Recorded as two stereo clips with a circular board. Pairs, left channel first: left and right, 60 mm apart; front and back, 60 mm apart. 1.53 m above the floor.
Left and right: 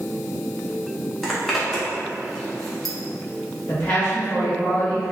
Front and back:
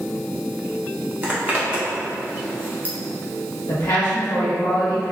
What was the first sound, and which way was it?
A zipper, 175° left.